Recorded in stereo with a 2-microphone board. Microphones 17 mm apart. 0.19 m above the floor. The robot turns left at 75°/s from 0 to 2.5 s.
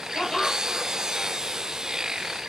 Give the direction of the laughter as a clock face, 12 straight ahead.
11 o'clock.